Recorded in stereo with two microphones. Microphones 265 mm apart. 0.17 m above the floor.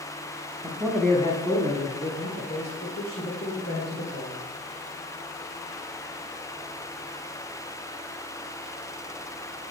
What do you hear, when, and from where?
0.6 s a man speaking: 20° right (ahead or behind), 1.0 m; by 4.4 s 60° left (ahead or behind), 4.5 m